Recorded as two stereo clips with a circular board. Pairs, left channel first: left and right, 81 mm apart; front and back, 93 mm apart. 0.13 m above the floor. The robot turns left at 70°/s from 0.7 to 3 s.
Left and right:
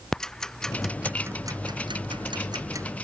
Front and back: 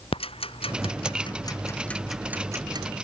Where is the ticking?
10° left; by 2.9 s 145° right.